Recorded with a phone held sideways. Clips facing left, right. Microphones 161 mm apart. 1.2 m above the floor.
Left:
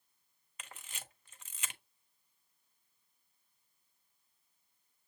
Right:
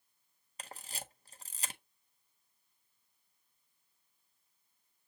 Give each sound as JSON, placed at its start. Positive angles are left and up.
{"t": 0.6, "sound": "a camera shutter", "side_deg": -35, "distance_m": 0.6}